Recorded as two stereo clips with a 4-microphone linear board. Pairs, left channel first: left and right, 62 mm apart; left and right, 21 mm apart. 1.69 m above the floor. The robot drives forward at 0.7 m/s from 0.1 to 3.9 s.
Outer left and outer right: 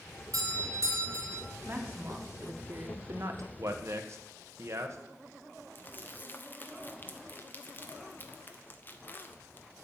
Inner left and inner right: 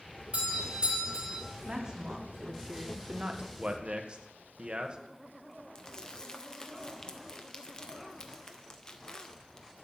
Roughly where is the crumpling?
Left.